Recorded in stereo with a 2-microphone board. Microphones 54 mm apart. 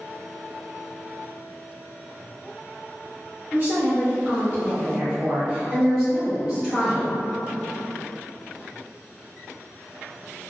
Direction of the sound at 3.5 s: 35° right (ahead or behind).